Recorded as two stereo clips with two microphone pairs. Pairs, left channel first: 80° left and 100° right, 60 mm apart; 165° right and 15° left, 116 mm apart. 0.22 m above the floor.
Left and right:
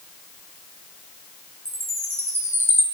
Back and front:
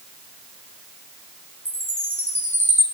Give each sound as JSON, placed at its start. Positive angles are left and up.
{"t": 1.6, "sound": "a chime", "azimuth_deg": -60, "distance_m": 3.5}